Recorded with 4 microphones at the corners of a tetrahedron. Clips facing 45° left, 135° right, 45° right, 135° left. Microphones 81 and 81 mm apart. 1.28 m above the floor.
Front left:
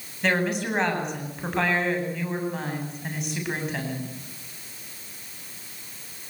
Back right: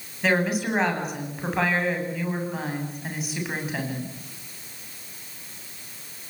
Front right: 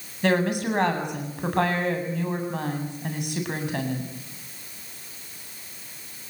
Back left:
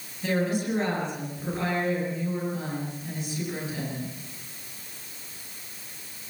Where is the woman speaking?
50° right, 8.5 m.